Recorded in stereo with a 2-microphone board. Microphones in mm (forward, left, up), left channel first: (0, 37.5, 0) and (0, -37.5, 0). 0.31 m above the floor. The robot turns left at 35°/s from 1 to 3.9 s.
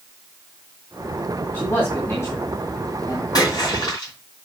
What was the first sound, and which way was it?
A man speaking, 25° left (ahead or behind).